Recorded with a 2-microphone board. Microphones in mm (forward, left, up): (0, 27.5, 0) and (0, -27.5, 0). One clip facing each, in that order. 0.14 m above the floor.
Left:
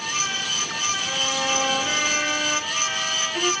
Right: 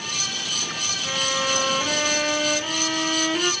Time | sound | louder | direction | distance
1.0 | a violin | right 4 dB | 25° right (ahead or behind) | 3.5 m